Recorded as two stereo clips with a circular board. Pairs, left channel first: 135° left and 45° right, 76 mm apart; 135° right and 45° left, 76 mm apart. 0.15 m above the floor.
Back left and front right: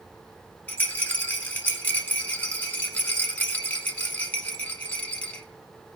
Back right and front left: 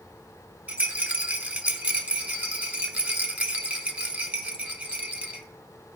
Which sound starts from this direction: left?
A rattle, at 0.7 s.